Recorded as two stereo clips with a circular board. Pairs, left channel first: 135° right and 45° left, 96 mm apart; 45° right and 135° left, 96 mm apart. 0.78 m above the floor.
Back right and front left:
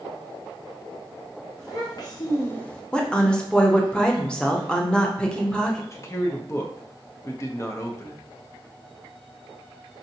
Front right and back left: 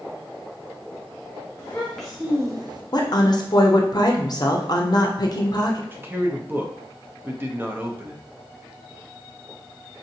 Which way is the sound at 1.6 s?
105° right.